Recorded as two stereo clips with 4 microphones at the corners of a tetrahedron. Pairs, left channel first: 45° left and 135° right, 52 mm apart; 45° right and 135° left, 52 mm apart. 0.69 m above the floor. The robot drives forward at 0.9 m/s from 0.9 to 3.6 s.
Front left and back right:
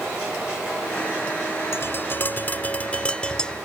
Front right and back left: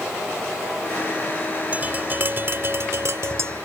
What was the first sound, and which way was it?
Tapping, 80° left.